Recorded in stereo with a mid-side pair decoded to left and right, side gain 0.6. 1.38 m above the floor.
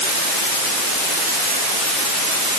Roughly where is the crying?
No crying in this recording.